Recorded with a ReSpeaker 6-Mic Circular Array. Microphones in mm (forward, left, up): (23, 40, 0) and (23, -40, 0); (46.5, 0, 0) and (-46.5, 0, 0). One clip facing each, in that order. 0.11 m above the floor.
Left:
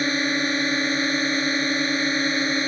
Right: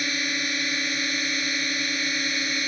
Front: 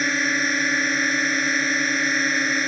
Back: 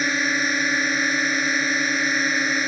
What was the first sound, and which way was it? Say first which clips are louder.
A drone: left 6 dB, even; 95° left.